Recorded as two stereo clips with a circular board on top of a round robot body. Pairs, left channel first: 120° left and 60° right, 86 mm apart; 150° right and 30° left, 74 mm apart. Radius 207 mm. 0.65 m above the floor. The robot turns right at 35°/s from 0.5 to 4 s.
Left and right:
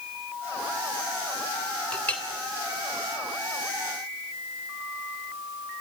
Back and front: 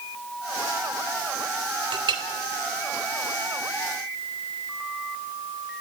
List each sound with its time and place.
1.9 s a clink: 40° left, 2.0 m; by 2.2 s 50° left, 2.0 m